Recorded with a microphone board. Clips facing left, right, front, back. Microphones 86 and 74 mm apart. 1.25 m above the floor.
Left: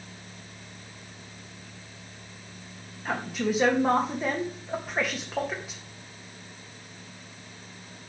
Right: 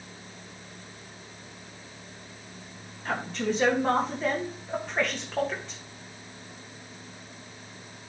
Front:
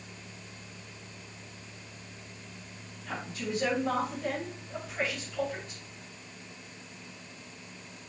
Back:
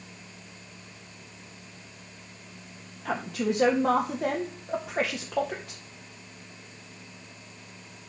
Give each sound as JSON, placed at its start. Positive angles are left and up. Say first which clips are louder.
{"t": 3.0, "sound": "a woman speaking", "louder": "left 1 dB, back 8 dB", "azimuth_deg": 170, "distance_m": 1.9}